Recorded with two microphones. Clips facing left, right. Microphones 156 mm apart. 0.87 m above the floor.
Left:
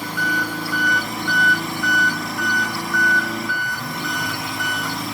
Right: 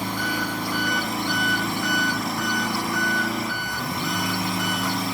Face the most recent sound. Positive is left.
turn(degrees=0)  # may be behind; listen again after turning